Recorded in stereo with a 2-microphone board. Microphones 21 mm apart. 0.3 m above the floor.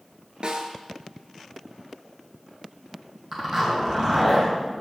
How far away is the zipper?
About 2.5 m.